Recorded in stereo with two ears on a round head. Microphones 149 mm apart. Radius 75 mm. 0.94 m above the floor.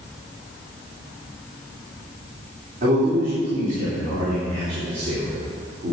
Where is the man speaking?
50° right (ahead or behind), 3 m.